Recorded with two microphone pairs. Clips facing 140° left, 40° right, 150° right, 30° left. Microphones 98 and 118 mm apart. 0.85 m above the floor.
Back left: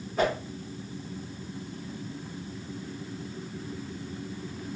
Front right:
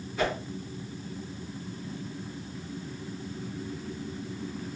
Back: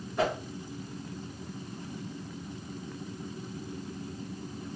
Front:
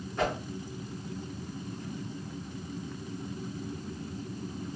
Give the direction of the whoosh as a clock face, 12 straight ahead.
7 o'clock.